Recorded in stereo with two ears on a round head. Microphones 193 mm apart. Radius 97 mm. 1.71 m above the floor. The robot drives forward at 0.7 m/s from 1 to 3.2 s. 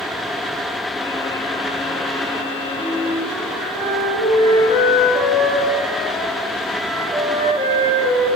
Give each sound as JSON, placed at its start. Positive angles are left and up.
{"t": 2.8, "sound": "a flute", "side_deg": 0, "distance_m": 1.6}